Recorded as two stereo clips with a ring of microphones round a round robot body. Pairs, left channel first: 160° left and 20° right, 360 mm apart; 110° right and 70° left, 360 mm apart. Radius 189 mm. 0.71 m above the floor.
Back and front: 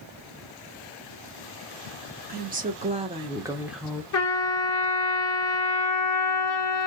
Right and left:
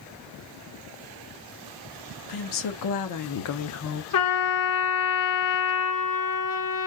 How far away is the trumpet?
About 1.6 m.